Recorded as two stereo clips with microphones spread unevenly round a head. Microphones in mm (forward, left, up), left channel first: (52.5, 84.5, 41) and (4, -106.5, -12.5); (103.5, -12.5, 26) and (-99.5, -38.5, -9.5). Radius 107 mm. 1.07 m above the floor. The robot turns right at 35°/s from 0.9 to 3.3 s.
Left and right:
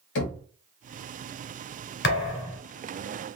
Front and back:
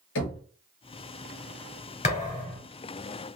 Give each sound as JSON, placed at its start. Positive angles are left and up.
{"t": 0.1, "sound": "knocking", "azimuth_deg": 50, "distance_m": 1.1}
{"t": 2.0, "sound": "a thud", "azimuth_deg": 60, "distance_m": 1.9}